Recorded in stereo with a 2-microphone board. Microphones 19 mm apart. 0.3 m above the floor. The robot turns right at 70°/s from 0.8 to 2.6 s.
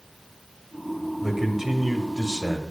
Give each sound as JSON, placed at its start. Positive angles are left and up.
{"t": 1.2, "sound": "a man speaking", "side_deg": -10, "distance_m": 1.0}